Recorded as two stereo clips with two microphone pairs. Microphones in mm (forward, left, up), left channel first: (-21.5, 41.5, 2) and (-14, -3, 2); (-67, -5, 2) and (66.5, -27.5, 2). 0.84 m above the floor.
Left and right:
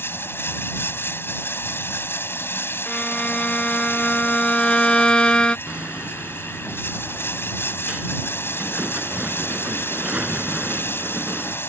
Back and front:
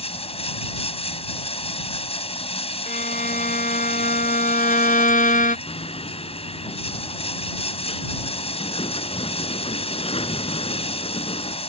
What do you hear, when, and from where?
0.0 s running water: 130° left
2.9 s a violin: 165° left
5.7 s hammering: 145° right